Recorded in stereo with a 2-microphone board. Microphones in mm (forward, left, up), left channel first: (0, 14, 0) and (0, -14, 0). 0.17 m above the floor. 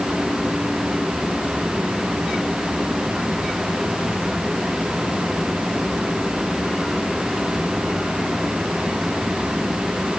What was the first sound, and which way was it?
Only background noise.